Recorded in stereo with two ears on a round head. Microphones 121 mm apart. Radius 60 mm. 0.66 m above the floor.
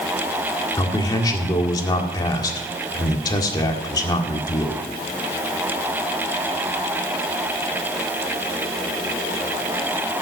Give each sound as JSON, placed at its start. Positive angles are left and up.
{"t": 0.8, "sound": "a man speaking", "side_deg": 30, "distance_m": 1.8}